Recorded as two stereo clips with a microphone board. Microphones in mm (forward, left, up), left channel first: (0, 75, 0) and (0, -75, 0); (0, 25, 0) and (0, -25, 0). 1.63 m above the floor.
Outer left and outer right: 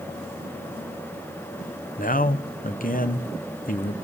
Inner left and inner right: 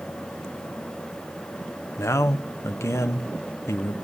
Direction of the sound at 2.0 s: 65° left (ahead or behind).